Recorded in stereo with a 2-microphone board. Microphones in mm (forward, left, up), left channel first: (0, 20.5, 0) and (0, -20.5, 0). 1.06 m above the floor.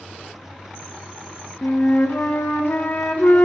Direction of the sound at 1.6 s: 50° left (ahead or behind).